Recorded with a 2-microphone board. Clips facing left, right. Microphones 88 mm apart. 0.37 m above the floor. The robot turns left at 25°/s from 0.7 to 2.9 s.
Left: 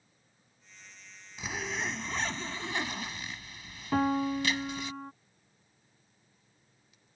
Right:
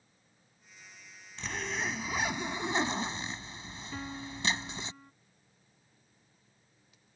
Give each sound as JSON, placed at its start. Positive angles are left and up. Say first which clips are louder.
{"t": 1.4, "sound": "a zipper", "louder": "even", "azimuth_deg": 10}
{"t": 3.9, "sound": "a piano", "louder": "left 15 dB", "side_deg": 70}